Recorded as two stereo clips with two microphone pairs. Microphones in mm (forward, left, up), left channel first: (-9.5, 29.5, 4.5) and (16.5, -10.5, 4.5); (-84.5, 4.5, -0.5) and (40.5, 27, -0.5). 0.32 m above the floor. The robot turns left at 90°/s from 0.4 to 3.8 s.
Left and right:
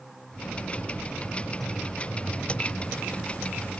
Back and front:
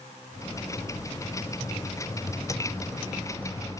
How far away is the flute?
No flute in this recording.